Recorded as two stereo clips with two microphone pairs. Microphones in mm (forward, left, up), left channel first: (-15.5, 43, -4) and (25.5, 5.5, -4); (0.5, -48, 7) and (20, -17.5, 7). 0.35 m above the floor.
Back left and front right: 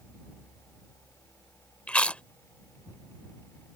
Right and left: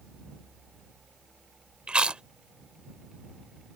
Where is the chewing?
90° left.